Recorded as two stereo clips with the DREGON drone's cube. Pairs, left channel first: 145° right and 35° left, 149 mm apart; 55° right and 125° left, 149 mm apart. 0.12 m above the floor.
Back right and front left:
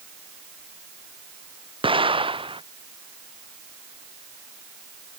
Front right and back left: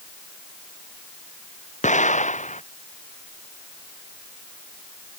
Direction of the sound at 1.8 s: 20° right.